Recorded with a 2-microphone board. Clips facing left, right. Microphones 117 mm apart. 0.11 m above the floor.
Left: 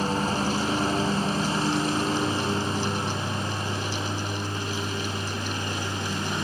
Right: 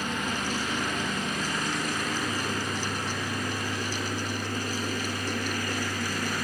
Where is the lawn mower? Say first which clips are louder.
Left 6 dB; 35° left (ahead or behind); by 6.4 s 25° left (ahead or behind).